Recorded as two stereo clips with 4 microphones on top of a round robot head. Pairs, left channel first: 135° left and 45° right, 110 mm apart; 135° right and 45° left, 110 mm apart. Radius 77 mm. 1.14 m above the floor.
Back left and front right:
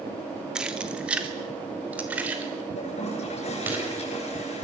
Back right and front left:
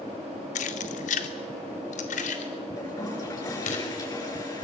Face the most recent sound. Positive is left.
turn(degrees=165)